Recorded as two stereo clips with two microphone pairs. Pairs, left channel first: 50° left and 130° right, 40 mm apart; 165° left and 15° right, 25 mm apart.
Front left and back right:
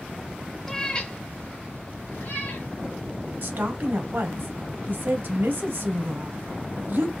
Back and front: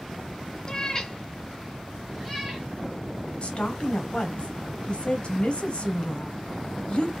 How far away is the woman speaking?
About 0.8 m.